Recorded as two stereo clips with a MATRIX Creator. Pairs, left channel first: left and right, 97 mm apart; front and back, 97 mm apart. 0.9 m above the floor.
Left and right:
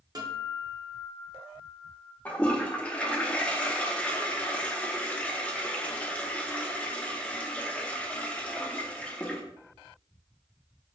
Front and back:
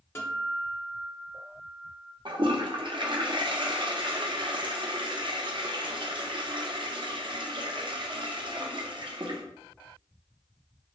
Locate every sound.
0.1 s a guitar: 55° right, 0.7 m
2.2 s a toilet flushing: 165° left, 0.5 m